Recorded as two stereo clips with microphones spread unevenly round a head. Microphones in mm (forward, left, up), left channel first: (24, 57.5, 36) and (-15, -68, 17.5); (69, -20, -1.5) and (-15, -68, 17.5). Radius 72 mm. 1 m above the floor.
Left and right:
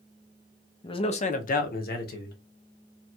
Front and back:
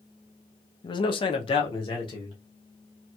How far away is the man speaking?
About 0.5 m.